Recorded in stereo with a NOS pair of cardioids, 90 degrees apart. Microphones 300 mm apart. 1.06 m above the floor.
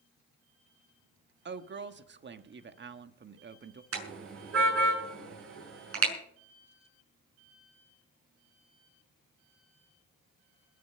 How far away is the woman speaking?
About 1.5 m.